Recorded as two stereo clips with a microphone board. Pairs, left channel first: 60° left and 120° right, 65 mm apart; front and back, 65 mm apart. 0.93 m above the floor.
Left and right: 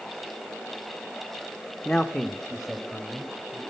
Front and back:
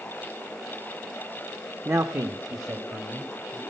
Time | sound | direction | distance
1.9 | a man speaking | 145° left | 0.6 m